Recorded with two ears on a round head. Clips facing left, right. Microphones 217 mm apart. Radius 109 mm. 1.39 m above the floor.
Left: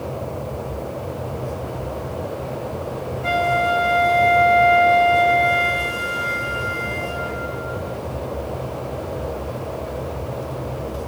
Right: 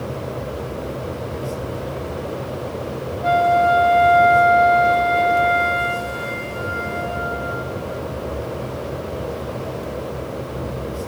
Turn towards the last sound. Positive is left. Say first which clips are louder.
# right 5 dB
turn(degrees=30)  # may be behind; listen again after turning